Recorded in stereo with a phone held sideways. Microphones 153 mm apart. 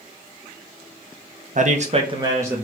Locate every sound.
1.6 s a man speaking: 55° right (ahead or behind), 0.6 m; by 2.7 s 10° right (ahead or behind), 1.0 m